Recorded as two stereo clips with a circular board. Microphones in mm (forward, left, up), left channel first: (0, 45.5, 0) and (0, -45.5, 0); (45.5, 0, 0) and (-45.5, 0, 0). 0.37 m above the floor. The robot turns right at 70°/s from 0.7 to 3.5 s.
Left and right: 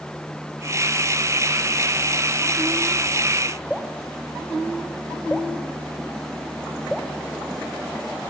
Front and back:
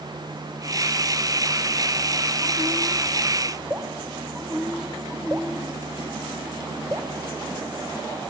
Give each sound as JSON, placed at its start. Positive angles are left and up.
{"t": 3.7, "sound": "dripping", "azimuth_deg": 180, "distance_m": 1.5}